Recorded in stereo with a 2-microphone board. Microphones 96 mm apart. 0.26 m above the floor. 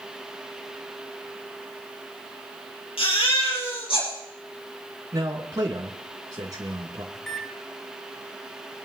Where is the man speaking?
40° right (ahead or behind), 2.5 m.